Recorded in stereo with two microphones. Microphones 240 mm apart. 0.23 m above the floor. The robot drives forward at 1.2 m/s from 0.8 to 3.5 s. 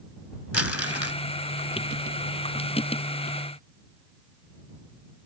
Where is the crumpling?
70° left (ahead or behind); by 1.2 s 65° left (ahead or behind).